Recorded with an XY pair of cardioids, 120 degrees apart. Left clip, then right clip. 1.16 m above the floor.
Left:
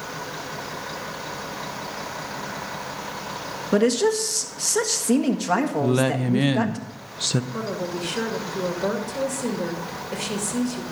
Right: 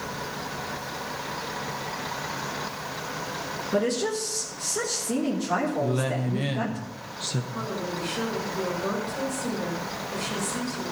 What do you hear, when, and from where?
3.7 s a woman speaking: 65° left, 1.4 m
5.8 s a woman speaking: 45° left, 0.7 m
7.5 s a woman speaking: 60° left, 2.5 m